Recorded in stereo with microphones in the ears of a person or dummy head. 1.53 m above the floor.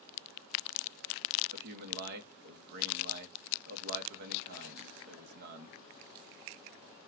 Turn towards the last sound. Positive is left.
turn(degrees=-50)  # may be behind; listen again after turning